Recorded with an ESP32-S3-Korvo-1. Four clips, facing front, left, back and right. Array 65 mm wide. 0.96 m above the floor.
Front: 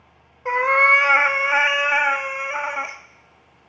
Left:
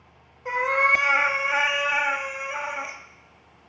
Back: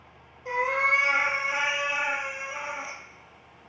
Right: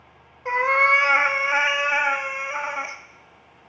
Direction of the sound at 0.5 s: 15° right.